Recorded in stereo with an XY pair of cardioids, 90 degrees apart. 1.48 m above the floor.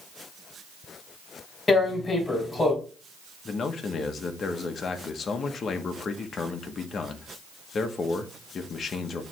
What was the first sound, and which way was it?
Tearing paper, 35° left.